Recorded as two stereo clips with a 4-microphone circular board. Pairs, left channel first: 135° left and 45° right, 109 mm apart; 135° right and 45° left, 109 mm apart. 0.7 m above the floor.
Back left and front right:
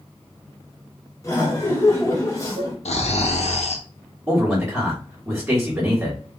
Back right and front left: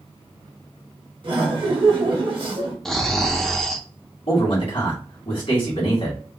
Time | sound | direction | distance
1.2 | laughter | 75° left | 1.2 m
2.9 | snoring | 140° left | 0.6 m
4.3 | a man speaking | 125° right | 1.8 m